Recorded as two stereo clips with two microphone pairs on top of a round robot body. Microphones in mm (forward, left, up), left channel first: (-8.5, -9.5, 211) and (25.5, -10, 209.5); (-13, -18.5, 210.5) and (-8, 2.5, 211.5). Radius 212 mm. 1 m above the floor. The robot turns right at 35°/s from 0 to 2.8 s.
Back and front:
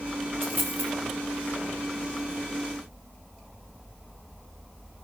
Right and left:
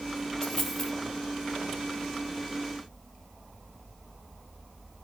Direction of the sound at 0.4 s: 30° right.